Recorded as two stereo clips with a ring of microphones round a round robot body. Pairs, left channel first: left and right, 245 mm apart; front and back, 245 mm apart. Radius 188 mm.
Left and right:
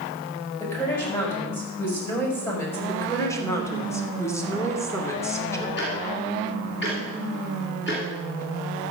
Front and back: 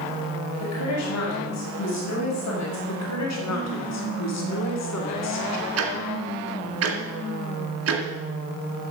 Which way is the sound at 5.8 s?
155° left.